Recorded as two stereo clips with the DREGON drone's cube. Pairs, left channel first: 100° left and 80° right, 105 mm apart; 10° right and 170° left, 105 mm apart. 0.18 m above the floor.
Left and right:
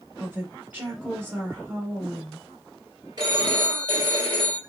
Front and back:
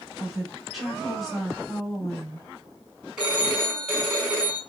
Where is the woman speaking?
100° right, 1.6 m.